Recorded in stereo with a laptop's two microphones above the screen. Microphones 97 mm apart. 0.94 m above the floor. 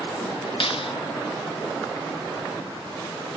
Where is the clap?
65° left (ahead or behind), 1.3 m.